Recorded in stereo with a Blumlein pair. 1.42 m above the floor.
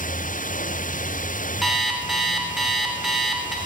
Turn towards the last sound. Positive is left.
turn(degrees=-5)